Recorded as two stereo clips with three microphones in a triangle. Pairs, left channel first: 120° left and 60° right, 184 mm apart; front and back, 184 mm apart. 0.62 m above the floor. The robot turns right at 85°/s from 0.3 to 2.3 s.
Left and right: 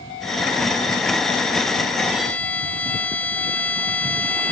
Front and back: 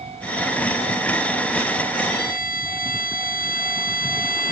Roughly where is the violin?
Ahead.